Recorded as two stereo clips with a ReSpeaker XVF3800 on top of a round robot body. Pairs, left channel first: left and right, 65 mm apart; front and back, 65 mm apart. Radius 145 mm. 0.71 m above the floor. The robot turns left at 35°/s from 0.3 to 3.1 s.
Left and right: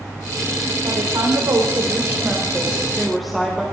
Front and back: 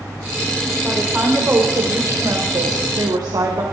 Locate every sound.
0.8 s a woman speaking: 100° right, 4 m; by 3.6 s straight behind, 4 m